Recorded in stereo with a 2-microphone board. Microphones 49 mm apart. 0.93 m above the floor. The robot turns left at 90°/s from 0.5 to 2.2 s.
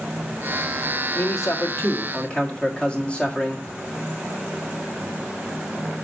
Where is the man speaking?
120° left, 1.8 m; by 3.7 s 25° left, 1.8 m.